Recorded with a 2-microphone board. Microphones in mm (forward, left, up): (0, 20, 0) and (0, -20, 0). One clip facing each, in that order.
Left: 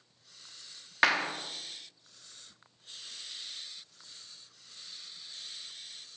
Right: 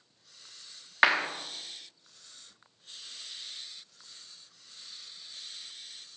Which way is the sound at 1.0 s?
10° right (ahead or behind).